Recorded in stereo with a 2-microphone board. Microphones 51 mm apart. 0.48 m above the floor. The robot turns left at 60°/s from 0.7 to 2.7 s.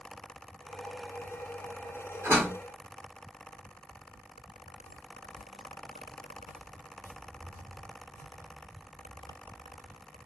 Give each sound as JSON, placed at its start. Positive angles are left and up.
{"t": 2.2, "sound": "a door slam", "side_deg": -55, "distance_m": 1.2}
{"t": 4.8, "sound": "footsteps", "side_deg": 55, "distance_m": 0.8}